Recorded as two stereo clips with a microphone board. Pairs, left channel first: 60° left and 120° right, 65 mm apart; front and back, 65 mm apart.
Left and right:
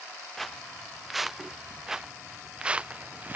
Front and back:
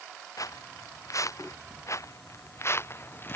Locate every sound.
0.4 s footsteps: 25° right; by 3.4 s 55° right